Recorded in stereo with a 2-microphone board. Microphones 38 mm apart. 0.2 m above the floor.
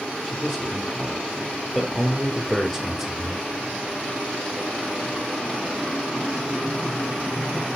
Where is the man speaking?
15° left (ahead or behind), 5.5 m; by 3.4 s 5° right (ahead or behind), 3.5 m.